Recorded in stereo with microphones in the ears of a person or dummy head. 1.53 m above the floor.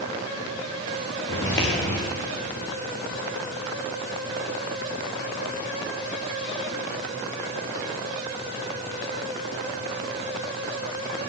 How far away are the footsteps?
About 6.5 m.